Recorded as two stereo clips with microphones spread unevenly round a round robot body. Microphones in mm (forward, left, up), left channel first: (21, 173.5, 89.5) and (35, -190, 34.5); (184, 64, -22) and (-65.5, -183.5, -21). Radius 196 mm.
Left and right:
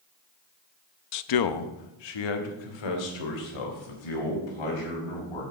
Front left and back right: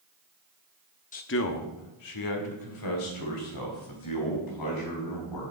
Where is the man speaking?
95° left, 0.6 m; by 5.4 s 85° left, 5 m.